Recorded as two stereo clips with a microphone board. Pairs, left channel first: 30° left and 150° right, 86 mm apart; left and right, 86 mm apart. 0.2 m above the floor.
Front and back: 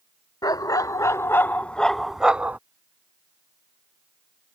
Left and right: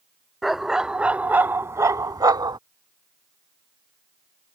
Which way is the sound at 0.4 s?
Straight ahead.